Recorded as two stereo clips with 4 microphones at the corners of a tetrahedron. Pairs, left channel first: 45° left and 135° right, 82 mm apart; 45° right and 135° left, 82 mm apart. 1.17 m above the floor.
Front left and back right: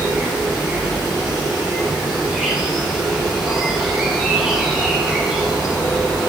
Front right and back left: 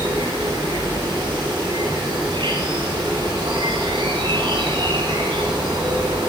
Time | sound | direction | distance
0.0 | an insect | 145° left | 5 m